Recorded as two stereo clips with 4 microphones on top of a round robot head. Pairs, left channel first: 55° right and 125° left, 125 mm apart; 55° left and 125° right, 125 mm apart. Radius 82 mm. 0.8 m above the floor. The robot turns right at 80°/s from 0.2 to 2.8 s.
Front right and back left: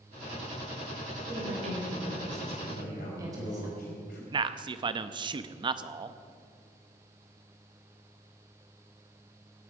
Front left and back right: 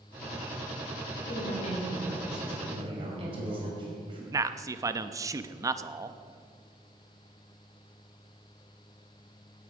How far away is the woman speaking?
About 4.5 m.